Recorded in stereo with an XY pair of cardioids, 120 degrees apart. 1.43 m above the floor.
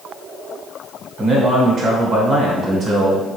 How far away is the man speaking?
About 1.3 m.